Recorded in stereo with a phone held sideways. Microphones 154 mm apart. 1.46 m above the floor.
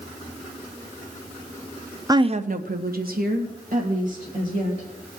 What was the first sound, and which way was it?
A woman speaking, 25° right (ahead or behind).